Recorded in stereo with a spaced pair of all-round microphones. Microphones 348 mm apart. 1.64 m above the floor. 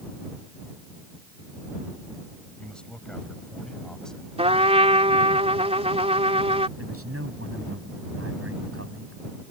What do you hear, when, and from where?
2.6 s a man speaking: 5° left (ahead or behind); by 4.3 s centre (ahead or behind)
4.4 s a trumpet: 15° right (ahead or behind)
6.8 s a man speaking: 40° right (ahead or behind)